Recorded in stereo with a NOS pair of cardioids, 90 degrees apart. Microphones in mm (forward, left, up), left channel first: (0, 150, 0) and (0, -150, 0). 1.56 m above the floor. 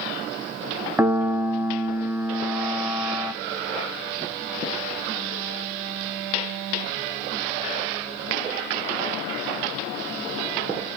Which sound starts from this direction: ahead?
A piano, at 1.0 s.